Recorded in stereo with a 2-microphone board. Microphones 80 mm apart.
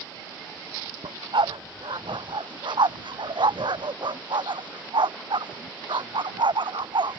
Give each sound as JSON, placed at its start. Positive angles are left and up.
{"t": 1.0, "sound": "a dog barking", "side_deg": -80}